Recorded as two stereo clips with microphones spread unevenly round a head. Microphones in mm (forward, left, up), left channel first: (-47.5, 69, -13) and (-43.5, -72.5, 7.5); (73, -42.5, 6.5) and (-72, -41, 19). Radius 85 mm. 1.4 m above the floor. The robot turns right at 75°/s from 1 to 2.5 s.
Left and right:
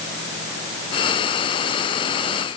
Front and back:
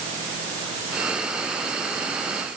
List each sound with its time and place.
Only background noise.